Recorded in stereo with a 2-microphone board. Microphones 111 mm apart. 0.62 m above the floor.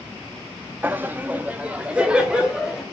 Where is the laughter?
15° right (ahead or behind), 0.5 m; by 2.8 s 10° right (ahead or behind), 1.7 m.